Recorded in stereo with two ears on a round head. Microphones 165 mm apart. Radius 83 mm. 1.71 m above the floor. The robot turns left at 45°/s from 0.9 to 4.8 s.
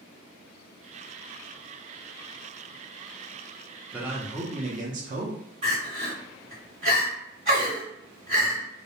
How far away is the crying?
About 1.9 m.